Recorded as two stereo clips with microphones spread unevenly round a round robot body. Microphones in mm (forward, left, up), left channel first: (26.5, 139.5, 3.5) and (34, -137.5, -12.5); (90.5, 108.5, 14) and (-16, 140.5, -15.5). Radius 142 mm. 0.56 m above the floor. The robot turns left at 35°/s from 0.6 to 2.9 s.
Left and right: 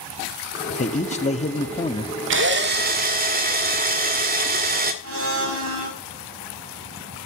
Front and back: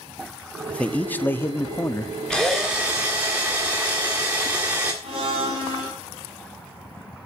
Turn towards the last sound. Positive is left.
turn(degrees=-135)